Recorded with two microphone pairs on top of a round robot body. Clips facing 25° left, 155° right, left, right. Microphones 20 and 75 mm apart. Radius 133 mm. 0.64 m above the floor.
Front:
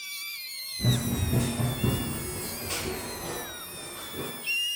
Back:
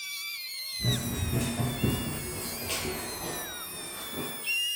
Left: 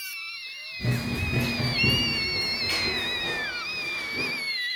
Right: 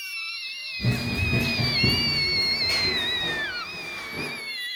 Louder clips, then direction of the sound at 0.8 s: Front 3 dB, right 1 dB; 20° left.